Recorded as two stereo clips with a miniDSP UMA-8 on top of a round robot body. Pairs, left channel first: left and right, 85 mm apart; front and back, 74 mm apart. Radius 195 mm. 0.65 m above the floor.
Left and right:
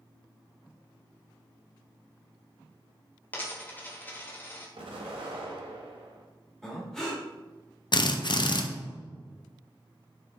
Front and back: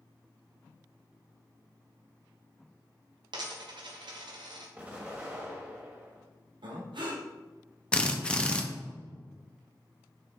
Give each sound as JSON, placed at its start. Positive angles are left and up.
{"t": 3.3, "sound": "a dropped coin", "azimuth_deg": 160, "distance_m": 1.1}
{"t": 4.8, "sound": "an explosion", "azimuth_deg": -105, "distance_m": 1.3}
{"t": 6.6, "sound": "breathing", "azimuth_deg": 175, "distance_m": 1.7}
{"t": 7.9, "sound": "a drill", "azimuth_deg": 75, "distance_m": 1.0}